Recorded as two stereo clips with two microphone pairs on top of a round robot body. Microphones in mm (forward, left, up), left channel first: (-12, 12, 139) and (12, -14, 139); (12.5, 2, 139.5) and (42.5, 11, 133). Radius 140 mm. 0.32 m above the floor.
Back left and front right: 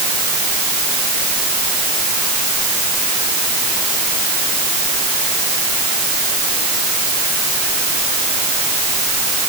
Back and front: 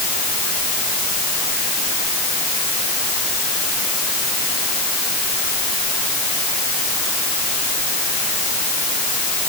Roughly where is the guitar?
I don't hear a guitar.